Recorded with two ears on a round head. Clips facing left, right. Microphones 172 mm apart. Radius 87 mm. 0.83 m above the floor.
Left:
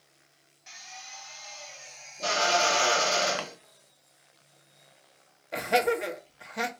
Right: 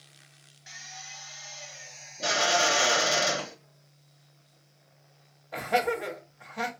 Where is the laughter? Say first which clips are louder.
Left 2 dB; 25° left (ahead or behind), 1.0 m.